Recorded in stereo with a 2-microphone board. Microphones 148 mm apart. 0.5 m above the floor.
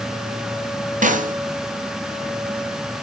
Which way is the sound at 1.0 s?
60° right (ahead or behind).